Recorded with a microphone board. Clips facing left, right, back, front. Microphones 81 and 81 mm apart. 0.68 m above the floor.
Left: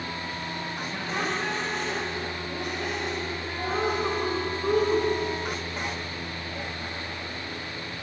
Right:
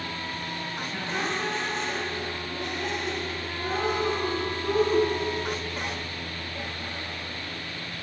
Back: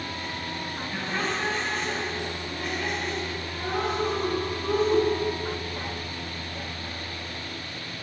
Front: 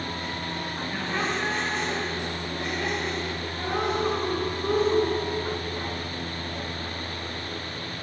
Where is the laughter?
65° left, 3.5 m.